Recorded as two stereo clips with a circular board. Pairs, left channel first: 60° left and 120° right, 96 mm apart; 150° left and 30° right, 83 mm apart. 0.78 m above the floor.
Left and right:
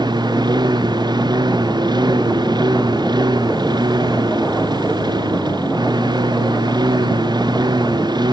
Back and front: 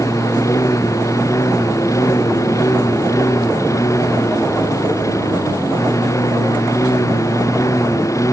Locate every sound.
0.0 s a lawn mower: 160° right